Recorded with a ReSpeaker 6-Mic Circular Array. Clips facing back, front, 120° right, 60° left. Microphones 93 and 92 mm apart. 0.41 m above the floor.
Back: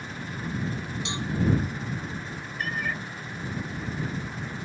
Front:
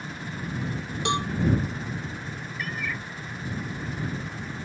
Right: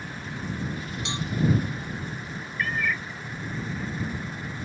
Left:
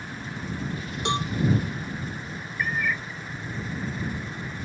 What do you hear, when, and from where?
1.1 s a cowbell: 25° left
2.6 s a cat meowing: 140° left